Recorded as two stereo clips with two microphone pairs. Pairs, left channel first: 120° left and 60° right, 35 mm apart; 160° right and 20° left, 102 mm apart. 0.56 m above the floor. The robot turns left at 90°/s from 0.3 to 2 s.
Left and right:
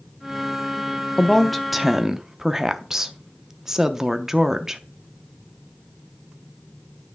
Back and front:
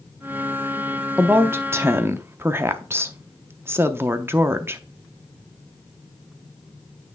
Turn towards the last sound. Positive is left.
turn(degrees=0)